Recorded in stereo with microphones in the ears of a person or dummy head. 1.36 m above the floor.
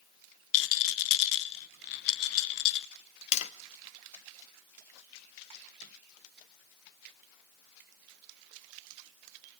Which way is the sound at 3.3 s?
40° left (ahead or behind).